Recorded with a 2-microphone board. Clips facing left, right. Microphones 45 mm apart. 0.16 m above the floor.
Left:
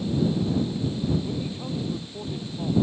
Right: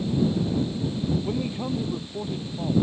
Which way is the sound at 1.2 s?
30° right (ahead or behind).